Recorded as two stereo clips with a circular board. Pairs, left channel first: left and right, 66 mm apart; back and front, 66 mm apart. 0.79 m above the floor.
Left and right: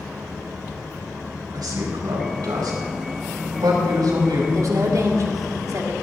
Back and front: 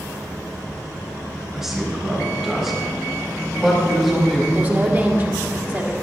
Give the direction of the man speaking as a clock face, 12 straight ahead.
3 o'clock.